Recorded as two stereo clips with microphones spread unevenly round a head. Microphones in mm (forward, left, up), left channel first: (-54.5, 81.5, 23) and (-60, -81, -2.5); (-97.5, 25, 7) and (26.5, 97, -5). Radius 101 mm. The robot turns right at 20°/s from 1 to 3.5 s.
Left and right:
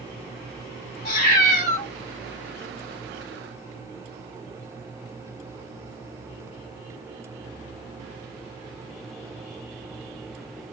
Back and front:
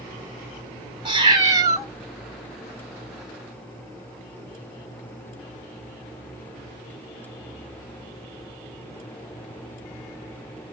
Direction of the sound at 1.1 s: 85° left.